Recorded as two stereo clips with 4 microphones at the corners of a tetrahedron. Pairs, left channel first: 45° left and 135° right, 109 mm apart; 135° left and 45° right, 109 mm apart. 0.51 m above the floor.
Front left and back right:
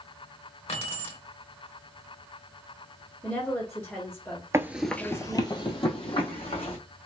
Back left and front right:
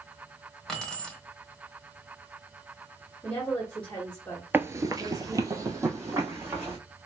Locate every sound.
0.7 s keys jangling: 50° left, 1.3 m
3.2 s a woman speaking: 75° left, 1.1 m
4.5 s running footsteps: 105° right, 0.5 m; by 6.8 s 20° left, 1.9 m